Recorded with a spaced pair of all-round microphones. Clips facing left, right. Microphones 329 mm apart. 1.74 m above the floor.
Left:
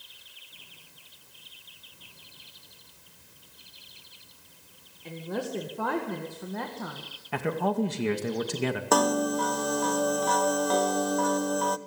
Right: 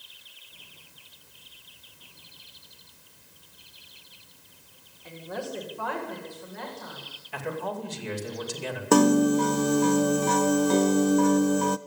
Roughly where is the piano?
Right.